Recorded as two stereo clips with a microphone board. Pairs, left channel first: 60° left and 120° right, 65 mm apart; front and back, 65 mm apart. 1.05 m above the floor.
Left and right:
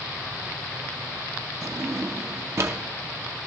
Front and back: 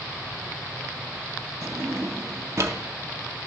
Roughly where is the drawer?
Behind right.